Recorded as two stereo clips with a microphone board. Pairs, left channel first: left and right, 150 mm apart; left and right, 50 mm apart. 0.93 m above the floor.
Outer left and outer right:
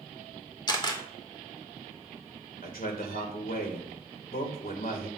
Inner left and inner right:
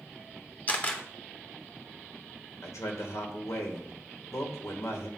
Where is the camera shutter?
30° left (ahead or behind), 2 m.